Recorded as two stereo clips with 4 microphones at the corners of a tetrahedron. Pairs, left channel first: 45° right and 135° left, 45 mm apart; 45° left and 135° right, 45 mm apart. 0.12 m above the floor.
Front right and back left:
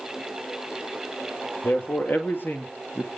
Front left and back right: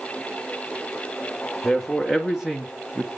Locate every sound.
1.6 s a man speaking: 45° right, 3 m; by 3.1 s 75° right, 2.5 m